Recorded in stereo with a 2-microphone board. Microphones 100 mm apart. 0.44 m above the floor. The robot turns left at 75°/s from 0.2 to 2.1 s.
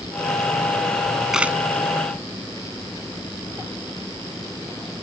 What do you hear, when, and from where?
1.3 s a camera shutter: 5° right (ahead or behind); by 1.6 s 20° right (ahead or behind)